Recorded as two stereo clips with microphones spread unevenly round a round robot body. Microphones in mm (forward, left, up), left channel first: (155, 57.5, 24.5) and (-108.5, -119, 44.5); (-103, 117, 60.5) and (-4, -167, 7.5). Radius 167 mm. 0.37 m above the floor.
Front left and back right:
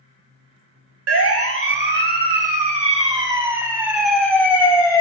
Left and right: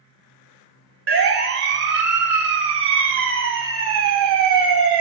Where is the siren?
105° right, 3.5 m; by 5.0 s 45° right, 3.5 m.